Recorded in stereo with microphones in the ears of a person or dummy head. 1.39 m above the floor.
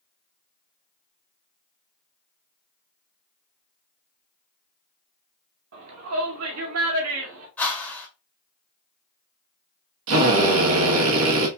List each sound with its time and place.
5.7 s a shout: 75° right (ahead or behind), 1.3 m; by 7.5 s 60° right (ahead or behind), 2.5 m
7.6 s a whoosh: 15° left (ahead or behind), 1.5 m
10.1 s a drill: 65° right (ahead or behind), 1.3 m